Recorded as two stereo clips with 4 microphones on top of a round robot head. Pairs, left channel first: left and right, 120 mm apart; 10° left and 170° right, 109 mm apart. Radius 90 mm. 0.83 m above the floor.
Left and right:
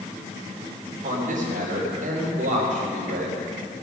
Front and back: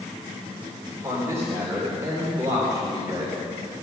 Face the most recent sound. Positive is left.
turn(degrees=-105)